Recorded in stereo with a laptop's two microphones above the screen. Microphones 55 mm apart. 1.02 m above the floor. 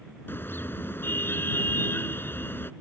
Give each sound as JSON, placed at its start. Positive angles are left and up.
{"t": 0.3, "sound": "a car horn", "side_deg": 40}